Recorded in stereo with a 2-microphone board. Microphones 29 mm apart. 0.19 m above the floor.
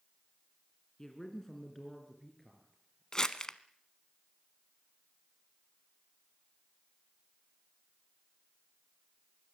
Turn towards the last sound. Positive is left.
turn(degrees=20)  # may be behind; listen again after turning